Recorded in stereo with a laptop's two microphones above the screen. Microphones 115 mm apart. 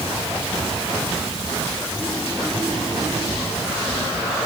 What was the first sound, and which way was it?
Only background noise.